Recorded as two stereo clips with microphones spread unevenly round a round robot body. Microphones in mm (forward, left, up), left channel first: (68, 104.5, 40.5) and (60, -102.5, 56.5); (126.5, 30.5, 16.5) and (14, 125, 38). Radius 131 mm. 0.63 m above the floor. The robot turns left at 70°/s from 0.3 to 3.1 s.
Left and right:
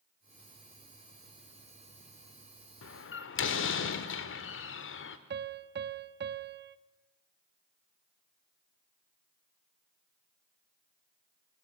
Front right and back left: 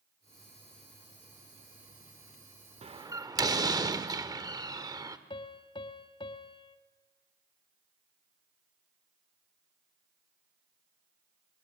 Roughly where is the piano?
Right.